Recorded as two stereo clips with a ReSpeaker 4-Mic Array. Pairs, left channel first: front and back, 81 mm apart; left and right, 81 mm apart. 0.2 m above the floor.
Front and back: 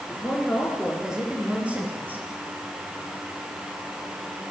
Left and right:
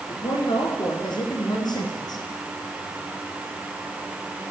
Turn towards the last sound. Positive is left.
turn(degrees=115)